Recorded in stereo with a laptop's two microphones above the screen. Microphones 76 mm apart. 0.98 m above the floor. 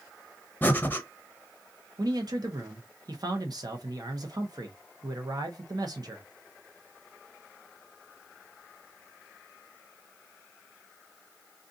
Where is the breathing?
25° left (ahead or behind), 1.0 m.